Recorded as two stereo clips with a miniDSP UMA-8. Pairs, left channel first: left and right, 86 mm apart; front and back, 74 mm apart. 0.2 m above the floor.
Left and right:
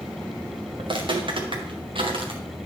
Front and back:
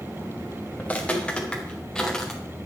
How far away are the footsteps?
About 3.5 m.